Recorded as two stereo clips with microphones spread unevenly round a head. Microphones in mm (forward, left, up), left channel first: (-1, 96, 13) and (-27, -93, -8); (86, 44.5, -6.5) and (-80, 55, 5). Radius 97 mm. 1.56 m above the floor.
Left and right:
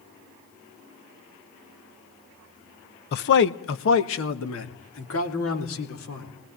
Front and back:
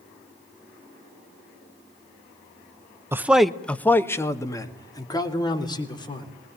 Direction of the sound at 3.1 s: 105° left.